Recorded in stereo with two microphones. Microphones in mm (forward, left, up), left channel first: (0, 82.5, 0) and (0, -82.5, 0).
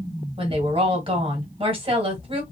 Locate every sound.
0.4 s a woman speaking: 35° right (ahead or behind), 1.4 m